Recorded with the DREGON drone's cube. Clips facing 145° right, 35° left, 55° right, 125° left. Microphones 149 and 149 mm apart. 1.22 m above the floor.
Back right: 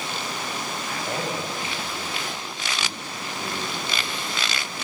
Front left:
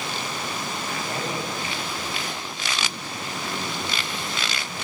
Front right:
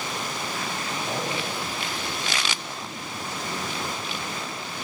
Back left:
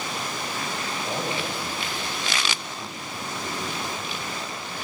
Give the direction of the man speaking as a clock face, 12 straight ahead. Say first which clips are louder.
Back right 2 dB, back left 1 dB; 5 o'clock.